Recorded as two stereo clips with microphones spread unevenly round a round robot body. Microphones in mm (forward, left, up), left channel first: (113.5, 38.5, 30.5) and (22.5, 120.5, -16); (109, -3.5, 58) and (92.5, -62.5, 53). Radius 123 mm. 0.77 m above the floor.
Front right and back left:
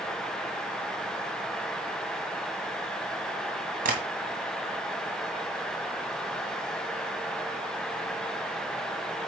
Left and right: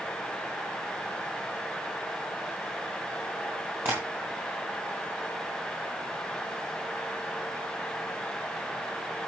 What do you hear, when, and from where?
3.9 s tapping: 175° left, 2 m